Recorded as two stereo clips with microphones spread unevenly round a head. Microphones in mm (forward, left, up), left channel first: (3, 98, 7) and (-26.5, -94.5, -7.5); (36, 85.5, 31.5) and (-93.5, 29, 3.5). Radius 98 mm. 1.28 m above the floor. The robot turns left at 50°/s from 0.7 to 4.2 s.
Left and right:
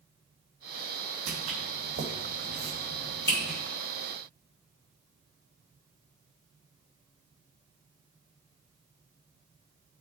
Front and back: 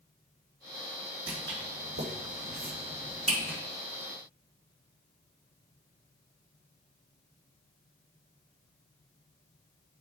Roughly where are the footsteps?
Right.